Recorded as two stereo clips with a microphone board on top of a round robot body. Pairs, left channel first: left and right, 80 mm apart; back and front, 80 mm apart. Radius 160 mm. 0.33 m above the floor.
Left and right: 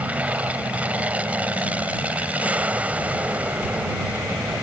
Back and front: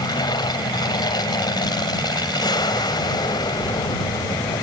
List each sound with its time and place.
0.0 s an aircraft: 165° right